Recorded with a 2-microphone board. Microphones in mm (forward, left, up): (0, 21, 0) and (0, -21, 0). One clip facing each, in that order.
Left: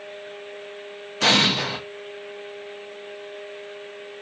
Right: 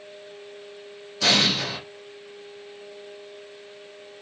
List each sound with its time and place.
1.2 s an explosion: 50° left (ahead or behind), 0.7 m